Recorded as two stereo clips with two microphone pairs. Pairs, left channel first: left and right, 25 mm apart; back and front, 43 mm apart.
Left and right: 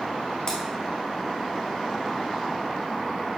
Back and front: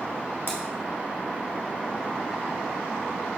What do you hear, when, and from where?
0.5 s scissors: 145° left, 2 m